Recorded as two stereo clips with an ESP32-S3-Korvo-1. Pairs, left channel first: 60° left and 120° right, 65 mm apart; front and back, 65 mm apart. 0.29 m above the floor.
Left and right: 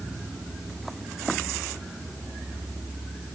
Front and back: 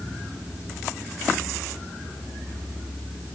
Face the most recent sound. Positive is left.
No sound to turn to.